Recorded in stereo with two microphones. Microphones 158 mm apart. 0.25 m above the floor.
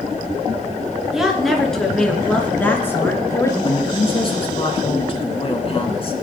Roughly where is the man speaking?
Left.